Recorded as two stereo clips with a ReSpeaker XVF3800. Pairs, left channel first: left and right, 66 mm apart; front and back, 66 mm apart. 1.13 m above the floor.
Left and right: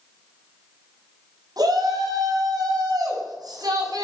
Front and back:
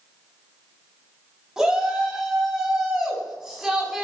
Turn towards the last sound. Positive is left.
turn(degrees=-95)